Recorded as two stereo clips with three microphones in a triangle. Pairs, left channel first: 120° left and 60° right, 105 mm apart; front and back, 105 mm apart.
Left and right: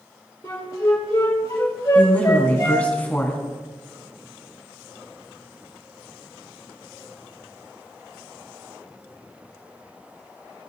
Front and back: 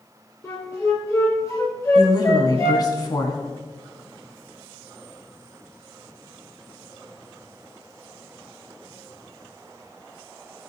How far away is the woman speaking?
About 2.5 m.